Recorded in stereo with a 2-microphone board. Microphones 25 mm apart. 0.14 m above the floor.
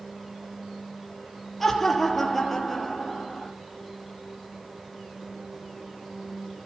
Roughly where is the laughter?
Centre.